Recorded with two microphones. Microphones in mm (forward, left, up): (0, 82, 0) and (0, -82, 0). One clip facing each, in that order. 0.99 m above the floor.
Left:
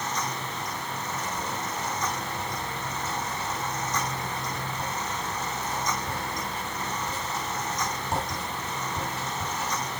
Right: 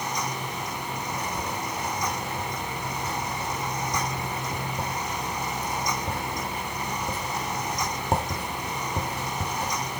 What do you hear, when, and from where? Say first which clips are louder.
1.1 s writing: right 1 dB; 50° right (ahead or behind), 3 m